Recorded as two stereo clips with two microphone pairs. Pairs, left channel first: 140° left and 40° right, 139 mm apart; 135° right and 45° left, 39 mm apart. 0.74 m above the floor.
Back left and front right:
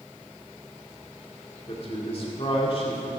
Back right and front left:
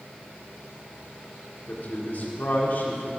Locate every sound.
1.7 s a man speaking: 175° right, 2 m